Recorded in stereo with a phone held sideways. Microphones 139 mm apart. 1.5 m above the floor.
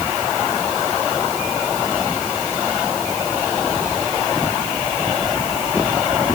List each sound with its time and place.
Only background noise.